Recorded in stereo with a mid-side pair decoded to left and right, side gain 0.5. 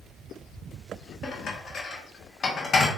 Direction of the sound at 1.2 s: 45° left.